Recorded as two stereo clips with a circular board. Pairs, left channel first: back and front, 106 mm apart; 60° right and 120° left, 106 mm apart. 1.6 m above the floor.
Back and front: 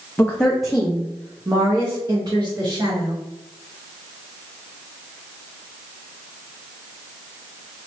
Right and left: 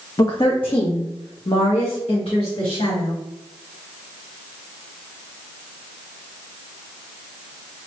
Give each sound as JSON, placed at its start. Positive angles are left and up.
{"t": 0.2, "sound": "a woman speaking", "azimuth_deg": -115, "distance_m": 0.6}